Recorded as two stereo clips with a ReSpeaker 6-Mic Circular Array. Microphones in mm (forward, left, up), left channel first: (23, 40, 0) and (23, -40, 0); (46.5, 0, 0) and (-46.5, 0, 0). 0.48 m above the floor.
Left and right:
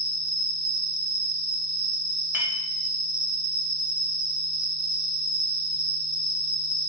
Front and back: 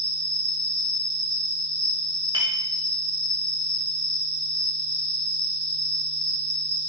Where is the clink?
150° right, 0.9 m.